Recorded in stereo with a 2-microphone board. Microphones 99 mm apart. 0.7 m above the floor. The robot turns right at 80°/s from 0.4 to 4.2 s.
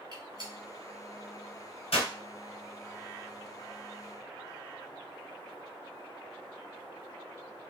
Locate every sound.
0.1 s a gunshot: 50° right (ahead or behind), 2 m; by 2.1 s 85° left, 2 m